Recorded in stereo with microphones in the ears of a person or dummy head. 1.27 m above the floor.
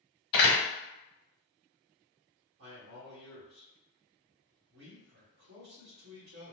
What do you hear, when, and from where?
0.3 s a door slam: 60° left (ahead or behind), 1.1 m
2.6 s a man speaking: 60° right (ahead or behind), 1.1 m